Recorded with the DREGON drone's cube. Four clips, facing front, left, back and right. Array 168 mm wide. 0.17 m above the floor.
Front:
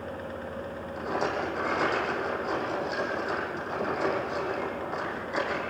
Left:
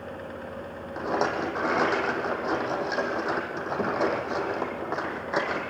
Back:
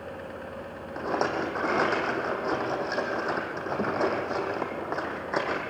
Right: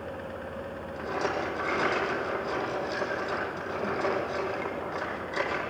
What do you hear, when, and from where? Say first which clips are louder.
1.0 s a rattle: left 4 dB, back 2 dB; 135° left, 5.5 m